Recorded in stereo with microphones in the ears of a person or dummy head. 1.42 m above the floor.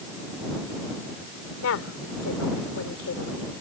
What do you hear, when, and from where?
1.6 s a woman speaking: 80° left